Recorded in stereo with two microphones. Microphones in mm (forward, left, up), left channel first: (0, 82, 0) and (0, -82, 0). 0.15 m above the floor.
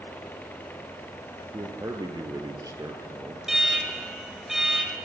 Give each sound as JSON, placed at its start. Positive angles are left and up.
{"t": 1.5, "sound": "a man speaking", "side_deg": -25, "distance_m": 3.0}
{"t": 3.4, "sound": "an alarm", "side_deg": 0, "distance_m": 4.0}